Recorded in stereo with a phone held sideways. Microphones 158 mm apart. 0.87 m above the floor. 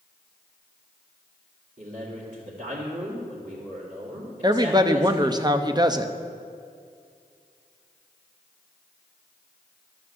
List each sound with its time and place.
1.8 s a man speaking: 60° right (ahead or behind), 2 m
4.4 s a woman speaking: 25° right (ahead or behind), 0.6 m